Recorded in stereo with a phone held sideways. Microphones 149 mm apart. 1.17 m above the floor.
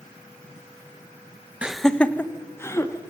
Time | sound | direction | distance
1.6 | laughter | 10° right (ahead or behind) | 0.7 m